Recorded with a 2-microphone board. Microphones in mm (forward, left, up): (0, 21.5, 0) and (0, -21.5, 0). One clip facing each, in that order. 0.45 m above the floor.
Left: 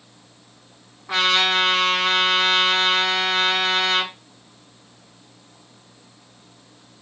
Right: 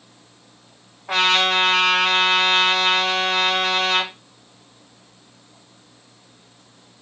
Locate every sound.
1.1 s a trumpet: 70° right (ahead or behind), 2.5 m